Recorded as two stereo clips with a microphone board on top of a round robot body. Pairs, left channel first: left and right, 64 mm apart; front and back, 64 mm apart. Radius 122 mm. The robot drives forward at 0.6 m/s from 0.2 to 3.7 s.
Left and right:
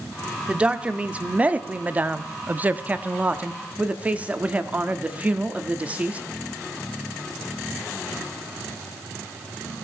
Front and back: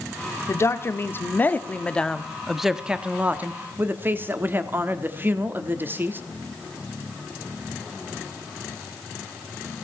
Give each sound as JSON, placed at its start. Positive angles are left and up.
{"t": 0.5, "sound": "a woman speaking", "azimuth_deg": -20, "distance_m": 1.7}